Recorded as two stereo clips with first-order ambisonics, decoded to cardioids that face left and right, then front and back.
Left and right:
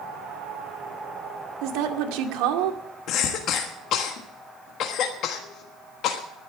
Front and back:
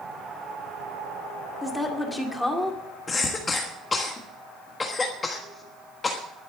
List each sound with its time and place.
1.6 s a woman speaking: 85° right, 2 m
3.1 s a cough: 65° left, 1.3 m